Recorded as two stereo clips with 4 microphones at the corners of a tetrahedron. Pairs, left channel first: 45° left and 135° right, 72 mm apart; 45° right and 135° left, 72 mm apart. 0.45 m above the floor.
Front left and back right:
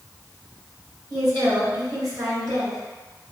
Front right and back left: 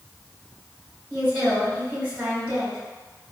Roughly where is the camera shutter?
I don't hear a camera shutter.